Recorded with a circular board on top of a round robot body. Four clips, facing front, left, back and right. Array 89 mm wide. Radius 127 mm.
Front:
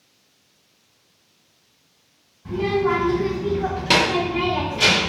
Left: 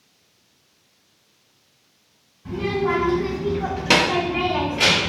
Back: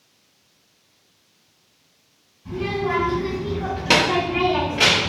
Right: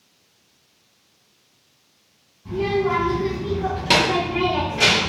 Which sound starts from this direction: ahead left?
A child speaking, at 2.5 s.